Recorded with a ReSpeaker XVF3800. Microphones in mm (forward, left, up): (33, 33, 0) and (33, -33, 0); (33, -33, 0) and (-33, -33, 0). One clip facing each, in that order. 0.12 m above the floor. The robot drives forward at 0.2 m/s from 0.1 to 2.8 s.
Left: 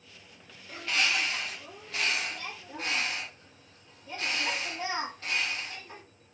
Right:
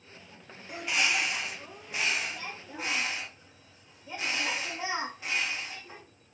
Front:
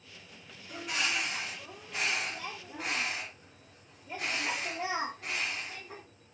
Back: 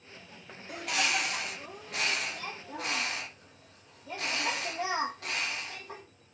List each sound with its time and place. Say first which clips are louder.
0.7 s a bird: even, back 3 dB; 165° right, 0.9 m; by 6.0 s 170° right, 1.3 m